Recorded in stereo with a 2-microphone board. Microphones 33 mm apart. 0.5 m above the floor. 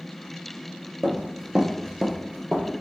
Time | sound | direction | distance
1.0 | running footsteps | 15° right (ahead or behind) | 0.8 m